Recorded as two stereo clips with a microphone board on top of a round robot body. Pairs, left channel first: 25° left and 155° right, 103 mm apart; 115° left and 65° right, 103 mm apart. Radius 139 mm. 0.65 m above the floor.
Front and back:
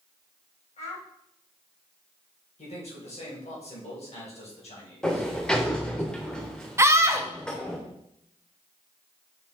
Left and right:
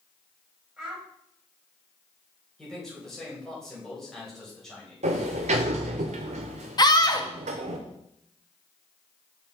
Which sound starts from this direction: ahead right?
A sliding door, at 5.0 s.